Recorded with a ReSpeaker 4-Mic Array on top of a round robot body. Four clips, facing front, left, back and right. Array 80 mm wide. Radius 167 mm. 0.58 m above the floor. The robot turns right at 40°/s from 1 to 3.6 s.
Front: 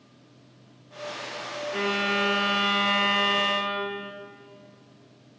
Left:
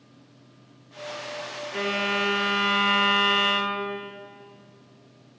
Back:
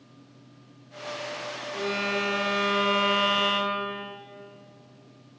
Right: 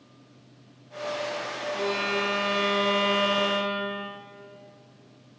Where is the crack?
I don't hear a crack.